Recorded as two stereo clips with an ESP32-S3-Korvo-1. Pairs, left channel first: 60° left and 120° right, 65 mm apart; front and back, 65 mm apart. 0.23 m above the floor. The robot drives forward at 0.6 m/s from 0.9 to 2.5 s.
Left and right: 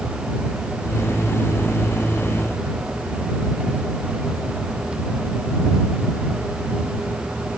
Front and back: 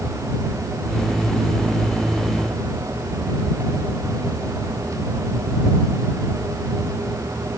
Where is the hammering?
No hammering in this recording.